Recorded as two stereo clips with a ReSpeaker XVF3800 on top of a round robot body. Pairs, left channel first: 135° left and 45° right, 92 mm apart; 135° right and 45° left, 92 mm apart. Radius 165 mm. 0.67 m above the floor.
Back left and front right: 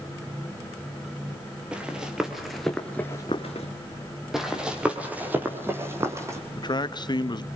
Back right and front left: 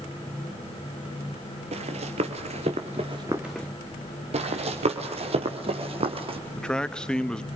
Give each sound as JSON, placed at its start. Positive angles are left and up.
{"t": 1.7, "sound": "running footsteps", "azimuth_deg": 35, "distance_m": 1.3}
{"t": 4.3, "sound": "running footsteps", "azimuth_deg": 40, "distance_m": 2.0}
{"t": 6.5, "sound": "a man speaking", "azimuth_deg": 145, "distance_m": 1.4}